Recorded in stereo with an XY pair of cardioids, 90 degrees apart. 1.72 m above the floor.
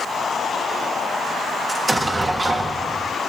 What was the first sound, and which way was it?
An explosion, 25° right.